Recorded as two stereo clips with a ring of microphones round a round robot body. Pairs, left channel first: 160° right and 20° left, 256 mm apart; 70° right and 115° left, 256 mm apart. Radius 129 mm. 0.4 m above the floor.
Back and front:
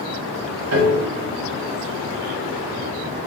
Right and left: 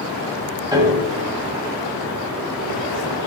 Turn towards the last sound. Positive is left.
turn(degrees=40)